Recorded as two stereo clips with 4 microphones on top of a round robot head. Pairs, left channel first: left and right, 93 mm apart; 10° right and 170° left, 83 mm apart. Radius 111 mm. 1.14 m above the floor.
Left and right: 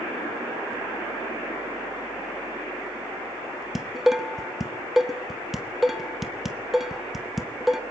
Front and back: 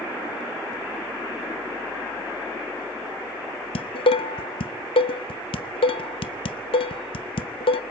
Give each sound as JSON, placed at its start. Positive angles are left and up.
{"t": 3.8, "sound": "dishes clattering", "azimuth_deg": -5, "distance_m": 0.7}